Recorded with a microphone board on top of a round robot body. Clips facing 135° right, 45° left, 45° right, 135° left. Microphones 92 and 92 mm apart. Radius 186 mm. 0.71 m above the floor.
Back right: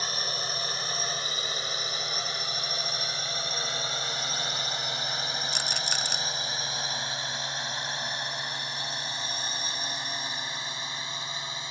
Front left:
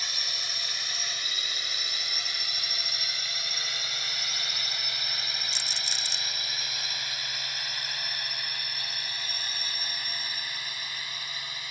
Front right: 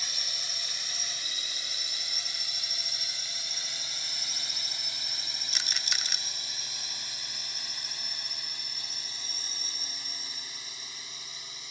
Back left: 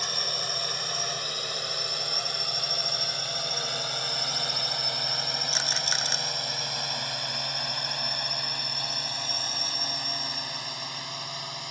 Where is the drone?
170° left; by 11.7 s 160° left.